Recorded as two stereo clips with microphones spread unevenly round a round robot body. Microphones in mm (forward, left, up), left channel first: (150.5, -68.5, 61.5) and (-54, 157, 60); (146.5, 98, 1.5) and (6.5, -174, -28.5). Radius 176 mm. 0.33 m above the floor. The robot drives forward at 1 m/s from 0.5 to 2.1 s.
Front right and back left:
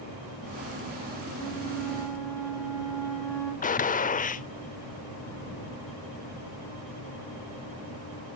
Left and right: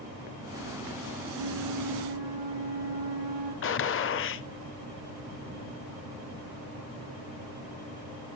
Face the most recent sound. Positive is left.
turn(degrees=15)